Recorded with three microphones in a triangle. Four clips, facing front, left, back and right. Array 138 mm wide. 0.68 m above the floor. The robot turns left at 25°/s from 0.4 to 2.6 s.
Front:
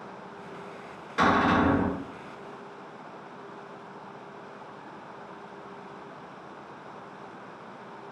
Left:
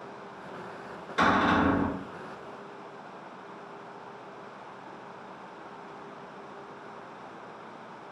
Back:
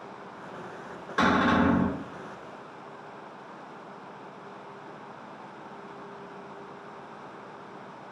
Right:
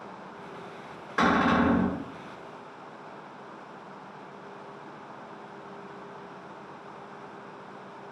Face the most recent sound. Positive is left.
turn(degrees=-165)